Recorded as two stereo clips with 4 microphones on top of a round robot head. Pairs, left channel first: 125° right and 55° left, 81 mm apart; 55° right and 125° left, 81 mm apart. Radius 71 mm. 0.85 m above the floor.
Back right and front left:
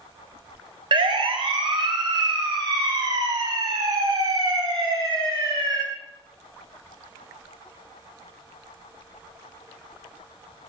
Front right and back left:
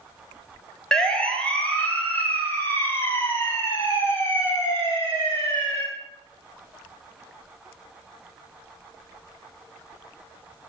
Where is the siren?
30° left, 3.5 m; by 5.8 s 5° left, 9 m.